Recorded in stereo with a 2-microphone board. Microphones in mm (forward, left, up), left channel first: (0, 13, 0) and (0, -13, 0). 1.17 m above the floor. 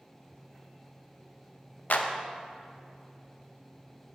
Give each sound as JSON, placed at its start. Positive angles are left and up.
{"t": 1.9, "sound": "a clap", "side_deg": 75, "distance_m": 0.7}